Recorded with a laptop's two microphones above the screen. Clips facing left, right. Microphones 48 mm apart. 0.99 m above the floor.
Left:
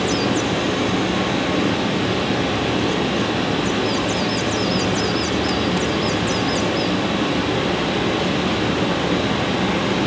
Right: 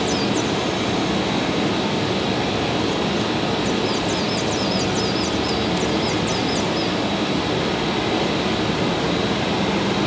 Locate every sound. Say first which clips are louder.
0.0 s running water: left 1 dB; 40° left (ahead or behind), 1.6 m